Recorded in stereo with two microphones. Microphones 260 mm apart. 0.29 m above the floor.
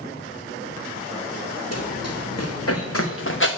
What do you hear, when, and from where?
1.7 s running footsteps: 75° left (ahead or behind), 3.5 m; by 3.5 s 50° left (ahead or behind), 1.7 m